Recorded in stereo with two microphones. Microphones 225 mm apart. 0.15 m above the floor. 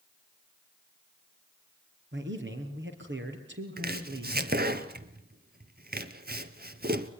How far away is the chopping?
About 1.2 m.